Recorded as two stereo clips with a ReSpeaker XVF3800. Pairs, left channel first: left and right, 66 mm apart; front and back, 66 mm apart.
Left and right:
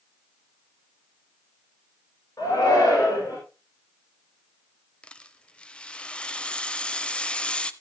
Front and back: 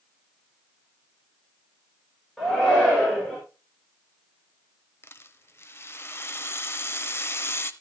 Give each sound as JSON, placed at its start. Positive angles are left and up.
{"t": 2.4, "sound": "a shout", "azimuth_deg": 80, "distance_m": 5.0}
{"t": 5.0, "sound": "a rattle", "azimuth_deg": 25, "distance_m": 0.6}